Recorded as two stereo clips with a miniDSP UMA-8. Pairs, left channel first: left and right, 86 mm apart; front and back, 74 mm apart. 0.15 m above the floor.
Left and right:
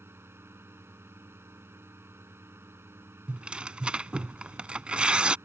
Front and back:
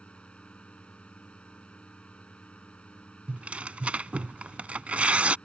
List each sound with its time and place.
0.0 s a drone: 60° right
3.3 s tearing paper: 145° right